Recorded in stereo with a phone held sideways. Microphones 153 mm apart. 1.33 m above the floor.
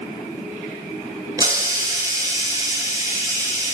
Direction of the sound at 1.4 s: 25° right (ahead or behind).